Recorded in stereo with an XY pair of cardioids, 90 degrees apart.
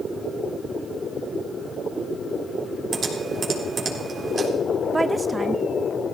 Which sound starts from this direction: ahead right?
Typing on a keyboard, at 2.9 s.